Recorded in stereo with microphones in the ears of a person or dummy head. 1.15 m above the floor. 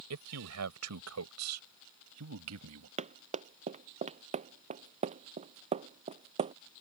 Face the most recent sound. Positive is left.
turn(degrees=-25)  # may be behind; listen again after turning